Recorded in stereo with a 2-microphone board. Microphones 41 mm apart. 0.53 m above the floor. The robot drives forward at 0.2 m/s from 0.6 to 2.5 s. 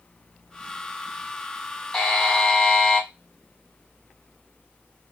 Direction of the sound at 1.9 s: 15° left (ahead or behind).